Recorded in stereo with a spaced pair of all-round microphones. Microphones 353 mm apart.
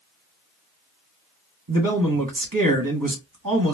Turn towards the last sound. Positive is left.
turn(degrees=-65)  # may be behind; listen again after turning